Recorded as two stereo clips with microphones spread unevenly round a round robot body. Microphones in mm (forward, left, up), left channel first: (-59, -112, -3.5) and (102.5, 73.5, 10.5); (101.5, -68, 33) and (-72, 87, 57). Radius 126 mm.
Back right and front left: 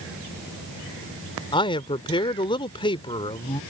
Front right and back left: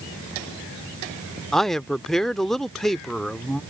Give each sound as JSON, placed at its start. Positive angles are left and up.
{"t": 1.5, "sound": "a man speaking", "azimuth_deg": -115}